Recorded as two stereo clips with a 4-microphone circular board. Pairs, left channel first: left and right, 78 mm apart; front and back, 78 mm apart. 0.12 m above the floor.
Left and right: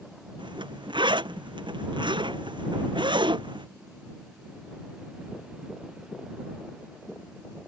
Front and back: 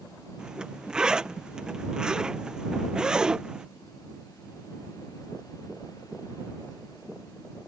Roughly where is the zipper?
Right.